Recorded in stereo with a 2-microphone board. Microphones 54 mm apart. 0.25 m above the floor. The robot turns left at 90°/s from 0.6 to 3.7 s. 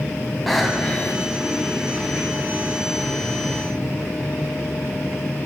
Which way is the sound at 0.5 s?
175° left.